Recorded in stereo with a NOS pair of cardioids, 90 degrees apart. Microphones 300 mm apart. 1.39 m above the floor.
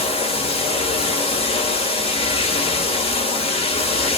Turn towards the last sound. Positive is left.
turn(degrees=20)